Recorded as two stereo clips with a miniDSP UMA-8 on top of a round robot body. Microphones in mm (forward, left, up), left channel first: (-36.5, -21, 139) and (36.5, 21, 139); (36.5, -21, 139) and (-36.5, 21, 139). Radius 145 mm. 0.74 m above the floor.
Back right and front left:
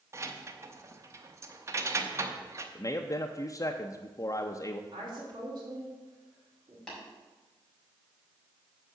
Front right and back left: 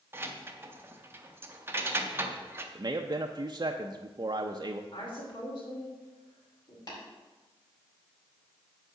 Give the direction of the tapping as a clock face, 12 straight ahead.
2 o'clock.